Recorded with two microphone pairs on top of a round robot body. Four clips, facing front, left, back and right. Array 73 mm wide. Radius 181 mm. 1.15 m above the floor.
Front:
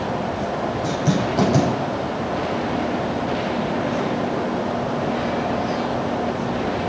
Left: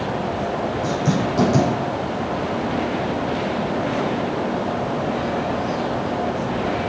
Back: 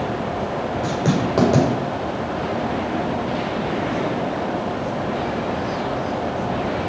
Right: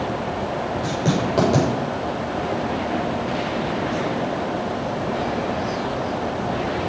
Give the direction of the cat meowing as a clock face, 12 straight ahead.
No cat meowing in this recording.